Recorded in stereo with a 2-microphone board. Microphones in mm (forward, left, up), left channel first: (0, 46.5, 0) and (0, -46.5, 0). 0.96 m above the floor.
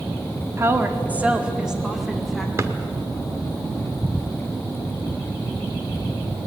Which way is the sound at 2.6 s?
30° right (ahead or behind).